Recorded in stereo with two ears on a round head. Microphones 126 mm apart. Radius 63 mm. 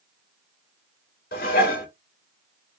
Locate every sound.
1.3 s dishes clattering: 70° left (ahead or behind), 2.5 m